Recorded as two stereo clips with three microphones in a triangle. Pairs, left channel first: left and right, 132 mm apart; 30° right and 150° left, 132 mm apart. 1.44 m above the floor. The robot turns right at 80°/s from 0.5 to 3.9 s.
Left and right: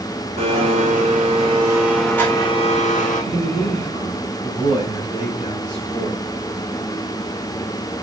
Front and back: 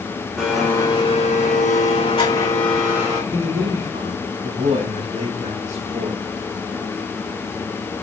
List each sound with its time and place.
0.4 s a blender: 125° right, 4 m; by 3.2 s 95° left, 4 m
3.3 s a man speaking: 70° left, 5 m; by 6.2 s 120° left, 5 m